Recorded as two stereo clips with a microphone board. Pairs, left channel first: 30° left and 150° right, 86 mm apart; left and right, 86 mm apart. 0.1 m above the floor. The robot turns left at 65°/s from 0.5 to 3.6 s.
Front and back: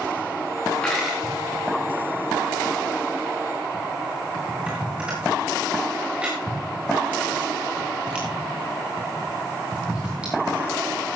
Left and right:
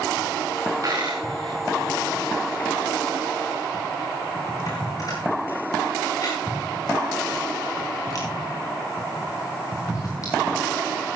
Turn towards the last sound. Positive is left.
turn(degrees=135)